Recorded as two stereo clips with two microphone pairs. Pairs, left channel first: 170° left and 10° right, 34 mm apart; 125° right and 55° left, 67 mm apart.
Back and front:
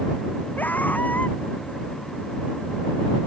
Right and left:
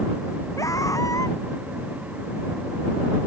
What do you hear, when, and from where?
0.6 s a scream: 160° right